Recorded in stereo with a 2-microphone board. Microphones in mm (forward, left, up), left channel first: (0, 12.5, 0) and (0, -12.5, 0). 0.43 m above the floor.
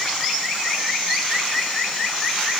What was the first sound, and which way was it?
Only background noise.